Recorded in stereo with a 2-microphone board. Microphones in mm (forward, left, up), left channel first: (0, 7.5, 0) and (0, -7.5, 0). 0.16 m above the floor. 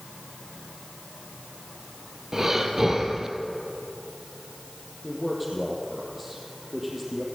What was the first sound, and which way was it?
Breathing, 30° right (ahead or behind).